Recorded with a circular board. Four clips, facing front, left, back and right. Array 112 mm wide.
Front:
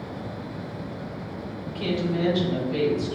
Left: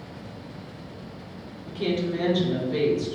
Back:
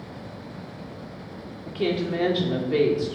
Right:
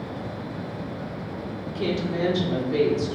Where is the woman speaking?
170° right, 2.0 m.